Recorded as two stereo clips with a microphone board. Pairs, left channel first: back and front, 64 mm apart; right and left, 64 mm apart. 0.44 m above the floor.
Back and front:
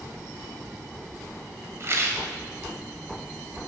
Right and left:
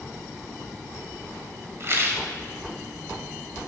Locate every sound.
1.8 s a rattle: 45° left, 2 m